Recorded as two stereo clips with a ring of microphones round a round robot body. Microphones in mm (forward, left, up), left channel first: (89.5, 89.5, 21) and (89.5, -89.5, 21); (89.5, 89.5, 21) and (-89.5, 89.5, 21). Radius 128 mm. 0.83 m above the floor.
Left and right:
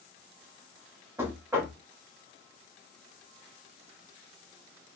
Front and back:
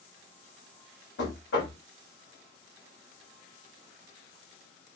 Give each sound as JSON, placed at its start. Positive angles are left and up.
{"t": 1.2, "sound": "knocking", "azimuth_deg": -15, "distance_m": 1.5}